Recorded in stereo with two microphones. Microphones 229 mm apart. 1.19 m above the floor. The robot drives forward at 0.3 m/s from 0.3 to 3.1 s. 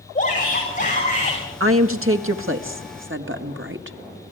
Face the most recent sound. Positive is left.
turn(degrees=-60)  # may be behind; listen again after turning